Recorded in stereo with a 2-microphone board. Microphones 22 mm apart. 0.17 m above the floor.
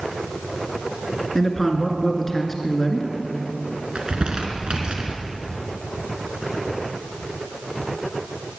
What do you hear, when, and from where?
1.4 s a man speaking: 15° left (ahead or behind), 2 m
4.0 s crumpling: 50° right (ahead or behind), 1.9 m